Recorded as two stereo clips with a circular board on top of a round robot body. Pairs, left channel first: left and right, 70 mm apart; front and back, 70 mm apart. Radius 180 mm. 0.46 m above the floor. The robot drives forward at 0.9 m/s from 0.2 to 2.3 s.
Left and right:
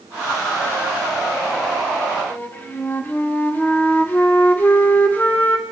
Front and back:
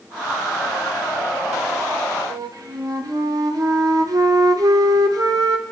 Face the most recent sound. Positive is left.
turn(degrees=150)